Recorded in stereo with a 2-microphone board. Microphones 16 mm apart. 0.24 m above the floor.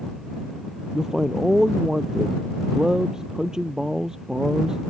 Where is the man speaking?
40° right (ahead or behind).